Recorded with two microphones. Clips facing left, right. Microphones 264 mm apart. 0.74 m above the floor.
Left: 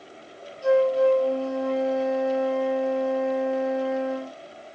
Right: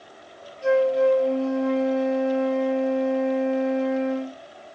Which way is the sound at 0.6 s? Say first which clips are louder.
Even; 20° right (ahead or behind).